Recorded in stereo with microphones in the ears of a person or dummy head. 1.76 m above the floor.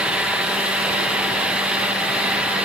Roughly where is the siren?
I don't hear a siren.